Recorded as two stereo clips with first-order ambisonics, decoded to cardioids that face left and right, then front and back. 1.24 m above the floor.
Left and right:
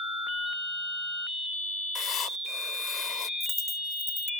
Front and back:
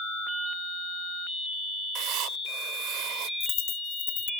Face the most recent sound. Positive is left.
turn(degrees=10)